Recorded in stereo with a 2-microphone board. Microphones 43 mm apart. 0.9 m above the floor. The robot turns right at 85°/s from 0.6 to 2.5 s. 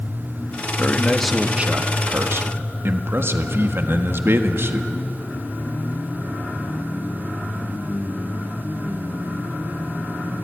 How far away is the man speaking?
About 1.5 m.